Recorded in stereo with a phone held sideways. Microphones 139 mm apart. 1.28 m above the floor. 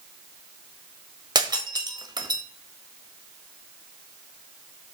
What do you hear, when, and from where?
1.4 s breaking glass: 30° right (ahead or behind), 1.2 m